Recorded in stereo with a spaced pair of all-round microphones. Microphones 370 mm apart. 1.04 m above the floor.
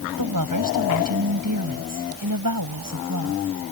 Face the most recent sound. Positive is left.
turn(degrees=-60)  # may be behind; listen again after turning